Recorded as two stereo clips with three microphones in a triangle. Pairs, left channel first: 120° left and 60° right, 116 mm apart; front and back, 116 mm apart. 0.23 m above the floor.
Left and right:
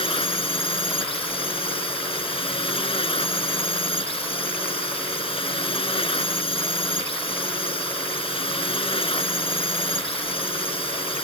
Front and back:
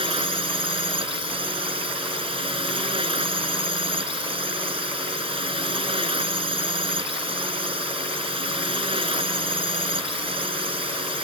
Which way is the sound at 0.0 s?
150° left.